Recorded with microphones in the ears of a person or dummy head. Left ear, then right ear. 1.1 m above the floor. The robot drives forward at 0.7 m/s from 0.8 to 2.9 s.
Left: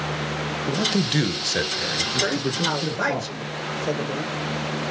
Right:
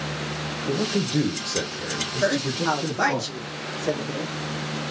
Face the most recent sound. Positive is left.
turn(degrees=-15)  # may be behind; listen again after turning